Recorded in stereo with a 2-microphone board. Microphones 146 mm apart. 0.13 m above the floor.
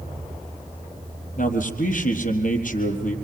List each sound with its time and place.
1.4 s a man speaking: 65° left (ahead or behind), 4 m